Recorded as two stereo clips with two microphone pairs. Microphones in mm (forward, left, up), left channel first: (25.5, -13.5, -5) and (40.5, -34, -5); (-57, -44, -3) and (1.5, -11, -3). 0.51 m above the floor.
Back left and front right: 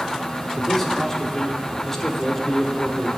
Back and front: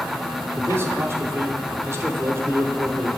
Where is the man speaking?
55° left, 0.9 m.